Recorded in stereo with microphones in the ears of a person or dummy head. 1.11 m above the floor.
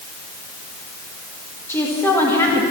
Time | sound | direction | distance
1.7 | a woman speaking | 10° left (ahead or behind) | 1.8 m